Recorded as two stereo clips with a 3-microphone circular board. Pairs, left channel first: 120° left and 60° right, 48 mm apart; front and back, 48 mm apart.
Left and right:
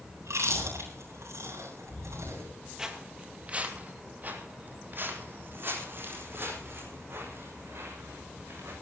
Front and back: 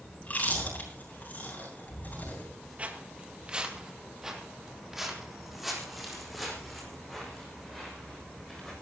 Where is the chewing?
60° right, 8 m.